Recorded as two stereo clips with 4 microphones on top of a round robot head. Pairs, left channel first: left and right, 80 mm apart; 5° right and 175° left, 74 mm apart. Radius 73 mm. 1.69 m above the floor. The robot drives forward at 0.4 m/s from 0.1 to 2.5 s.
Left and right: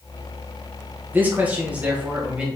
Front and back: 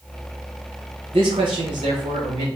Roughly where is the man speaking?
Behind right.